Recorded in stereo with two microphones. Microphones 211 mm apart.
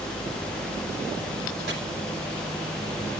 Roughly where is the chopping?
Right.